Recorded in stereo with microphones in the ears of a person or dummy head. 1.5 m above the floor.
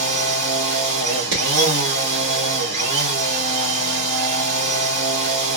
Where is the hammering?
75° right (ahead or behind), 1.9 m.